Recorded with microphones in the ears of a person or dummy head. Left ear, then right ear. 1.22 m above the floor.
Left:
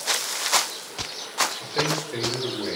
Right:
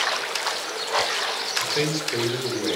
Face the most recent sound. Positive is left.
turn(degrees=-15)  # may be behind; listen again after turning